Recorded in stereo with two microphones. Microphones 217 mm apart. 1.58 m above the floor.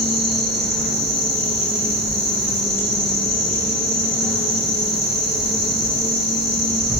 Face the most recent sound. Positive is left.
turn(degrees=-45)  # may be behind; listen again after turning